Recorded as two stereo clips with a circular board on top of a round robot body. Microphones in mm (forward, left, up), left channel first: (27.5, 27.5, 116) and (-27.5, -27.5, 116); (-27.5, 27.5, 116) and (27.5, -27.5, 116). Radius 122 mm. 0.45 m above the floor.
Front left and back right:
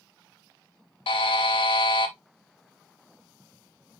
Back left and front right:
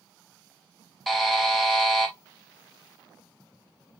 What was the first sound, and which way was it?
A buzzer, 45° left.